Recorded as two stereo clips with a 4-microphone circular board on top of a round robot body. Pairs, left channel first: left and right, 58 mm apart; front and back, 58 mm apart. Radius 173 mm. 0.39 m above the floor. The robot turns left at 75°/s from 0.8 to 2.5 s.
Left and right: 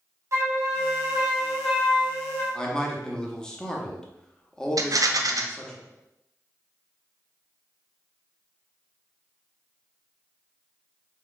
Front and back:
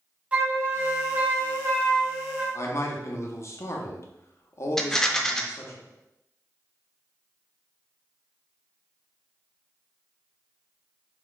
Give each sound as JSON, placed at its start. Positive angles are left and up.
{"t": 0.3, "sound": "a flute", "azimuth_deg": -115, "distance_m": 1.8}
{"t": 2.5, "sound": "a man speaking", "azimuth_deg": 15, "distance_m": 1.3}
{"t": 4.8, "sound": "a rattle", "azimuth_deg": -80, "distance_m": 0.8}